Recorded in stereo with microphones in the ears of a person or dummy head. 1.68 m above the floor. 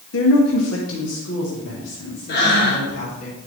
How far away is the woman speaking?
About 1.1 m.